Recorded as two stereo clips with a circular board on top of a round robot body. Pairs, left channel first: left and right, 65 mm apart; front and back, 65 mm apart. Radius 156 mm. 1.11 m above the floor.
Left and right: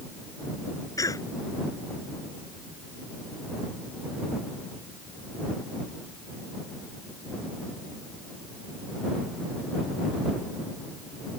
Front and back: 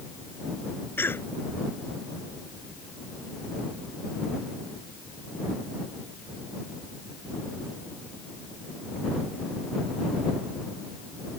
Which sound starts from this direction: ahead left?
A cough, at 1.0 s.